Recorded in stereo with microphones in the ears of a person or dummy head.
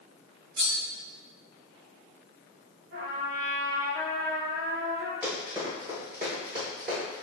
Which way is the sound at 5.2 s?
15° right (ahead or behind).